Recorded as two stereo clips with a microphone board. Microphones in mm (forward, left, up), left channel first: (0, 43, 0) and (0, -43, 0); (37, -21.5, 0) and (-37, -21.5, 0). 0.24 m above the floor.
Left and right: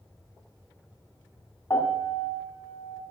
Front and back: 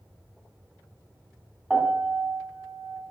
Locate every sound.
1.7 s a piano: 105° left, 1.8 m